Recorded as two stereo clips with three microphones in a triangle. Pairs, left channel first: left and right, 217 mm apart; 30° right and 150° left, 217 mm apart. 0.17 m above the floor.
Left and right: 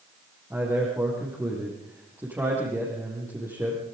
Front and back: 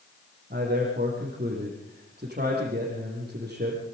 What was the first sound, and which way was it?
A man speaking, 165° right.